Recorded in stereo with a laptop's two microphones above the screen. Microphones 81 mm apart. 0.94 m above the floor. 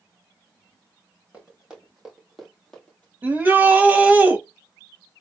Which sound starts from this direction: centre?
Running footsteps, at 1.3 s.